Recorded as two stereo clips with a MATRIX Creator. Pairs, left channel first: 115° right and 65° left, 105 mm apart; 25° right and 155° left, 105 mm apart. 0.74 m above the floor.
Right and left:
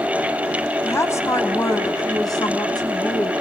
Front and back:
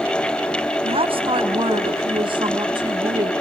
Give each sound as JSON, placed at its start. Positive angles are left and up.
{"t": 0.8, "sound": "a woman speaking", "azimuth_deg": 180, "distance_m": 3.5}